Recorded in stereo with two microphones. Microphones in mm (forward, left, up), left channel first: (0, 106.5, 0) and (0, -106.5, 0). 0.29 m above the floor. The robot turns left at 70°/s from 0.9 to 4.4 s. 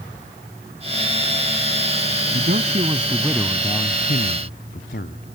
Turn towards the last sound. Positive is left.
turn(degrees=110)